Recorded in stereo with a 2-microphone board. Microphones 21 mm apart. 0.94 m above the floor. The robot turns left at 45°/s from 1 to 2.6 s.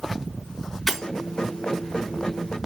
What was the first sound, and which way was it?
Breaking glass, 5° right (ahead or behind).